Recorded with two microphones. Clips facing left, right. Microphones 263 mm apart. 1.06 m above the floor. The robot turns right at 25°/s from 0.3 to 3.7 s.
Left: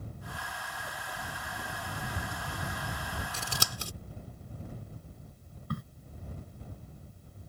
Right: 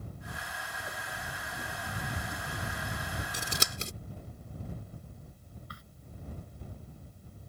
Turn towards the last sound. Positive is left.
turn(degrees=60)  # may be behind; listen again after turning